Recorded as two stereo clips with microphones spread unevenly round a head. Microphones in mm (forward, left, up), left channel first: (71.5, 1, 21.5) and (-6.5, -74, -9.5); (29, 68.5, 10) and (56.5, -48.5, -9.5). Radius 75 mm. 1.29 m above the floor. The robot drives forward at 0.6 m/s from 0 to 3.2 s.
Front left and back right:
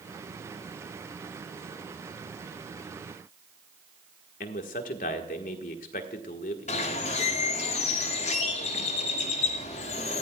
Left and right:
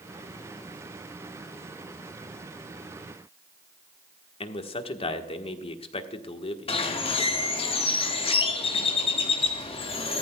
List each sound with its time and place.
4.4 s a man speaking: 60° left, 1.4 m
6.7 s a bird: 70° left, 1.8 m